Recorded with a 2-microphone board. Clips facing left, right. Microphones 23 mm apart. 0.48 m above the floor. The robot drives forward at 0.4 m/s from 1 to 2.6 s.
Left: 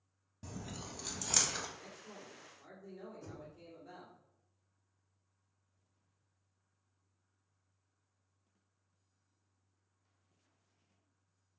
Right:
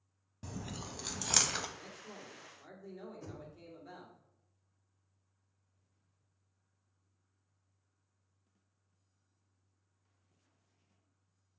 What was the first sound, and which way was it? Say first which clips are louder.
Chewing: right 2 dB; 30° right (ahead or behind).